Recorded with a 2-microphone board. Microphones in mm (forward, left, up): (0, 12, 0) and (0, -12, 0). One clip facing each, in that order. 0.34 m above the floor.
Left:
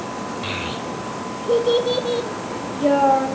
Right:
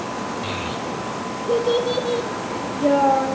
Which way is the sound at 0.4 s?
15° left (ahead or behind).